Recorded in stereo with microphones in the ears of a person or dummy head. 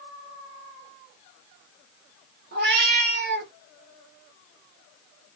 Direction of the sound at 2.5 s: 60° right (ahead or behind).